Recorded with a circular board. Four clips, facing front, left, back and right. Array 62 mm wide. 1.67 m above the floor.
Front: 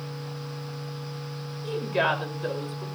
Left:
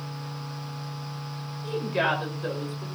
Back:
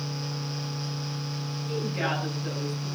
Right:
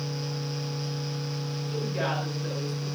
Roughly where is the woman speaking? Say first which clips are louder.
Left 5 dB, front 5 dB; ahead left.